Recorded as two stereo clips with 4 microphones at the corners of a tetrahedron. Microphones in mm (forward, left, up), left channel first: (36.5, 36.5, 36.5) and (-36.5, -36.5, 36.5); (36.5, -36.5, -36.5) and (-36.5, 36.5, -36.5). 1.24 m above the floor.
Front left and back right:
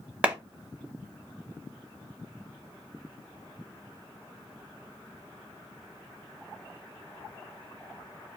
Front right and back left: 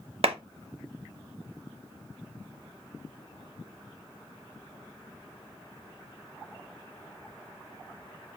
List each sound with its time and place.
0.2 s a clap: 150° left, 0.8 m